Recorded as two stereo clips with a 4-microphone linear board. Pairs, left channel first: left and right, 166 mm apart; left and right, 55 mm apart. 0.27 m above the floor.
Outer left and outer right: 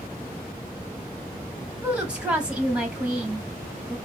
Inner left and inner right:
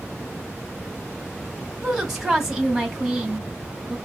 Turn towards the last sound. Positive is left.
turn(degrees=-5)  # may be behind; listen again after turning